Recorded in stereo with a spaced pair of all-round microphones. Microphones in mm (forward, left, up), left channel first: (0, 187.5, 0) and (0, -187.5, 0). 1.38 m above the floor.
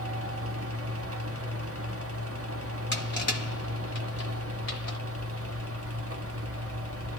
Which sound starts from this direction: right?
A fan, at 0.0 s.